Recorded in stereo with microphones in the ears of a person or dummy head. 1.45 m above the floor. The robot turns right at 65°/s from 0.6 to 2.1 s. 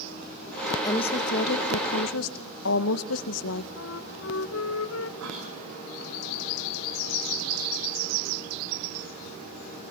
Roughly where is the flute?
Left.